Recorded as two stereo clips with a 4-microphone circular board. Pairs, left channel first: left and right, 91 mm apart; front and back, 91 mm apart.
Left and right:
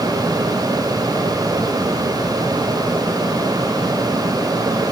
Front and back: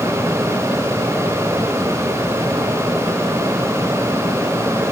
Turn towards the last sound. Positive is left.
No sound to turn to.